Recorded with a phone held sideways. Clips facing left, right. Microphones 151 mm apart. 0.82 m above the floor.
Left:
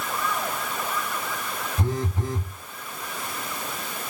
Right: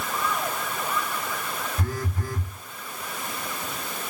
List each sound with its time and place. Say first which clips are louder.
1.8 s a phone buzzing: left 3 dB; 25° left (ahead or behind), 0.9 m